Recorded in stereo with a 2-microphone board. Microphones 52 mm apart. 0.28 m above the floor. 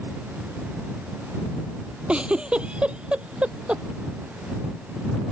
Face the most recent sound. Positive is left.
turn(degrees=-20)  # may be behind; listen again after turning